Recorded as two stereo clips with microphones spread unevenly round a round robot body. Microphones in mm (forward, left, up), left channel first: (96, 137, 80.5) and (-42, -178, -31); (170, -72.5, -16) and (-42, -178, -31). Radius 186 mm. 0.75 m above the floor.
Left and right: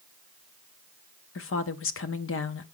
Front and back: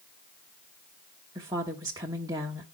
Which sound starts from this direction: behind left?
A woman speaking, at 1.4 s.